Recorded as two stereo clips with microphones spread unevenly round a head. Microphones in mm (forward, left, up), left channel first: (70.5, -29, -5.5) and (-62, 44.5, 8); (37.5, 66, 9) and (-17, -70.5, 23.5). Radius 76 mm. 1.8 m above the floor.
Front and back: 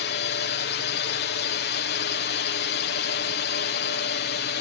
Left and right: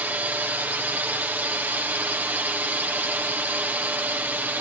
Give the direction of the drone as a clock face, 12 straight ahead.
1 o'clock.